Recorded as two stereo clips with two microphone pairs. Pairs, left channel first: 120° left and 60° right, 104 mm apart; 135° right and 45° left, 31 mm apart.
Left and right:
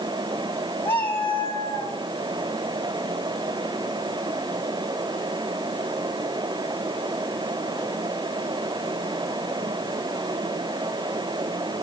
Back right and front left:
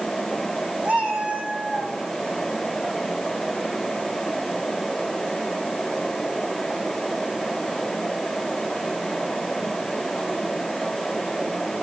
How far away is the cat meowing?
About 3 m.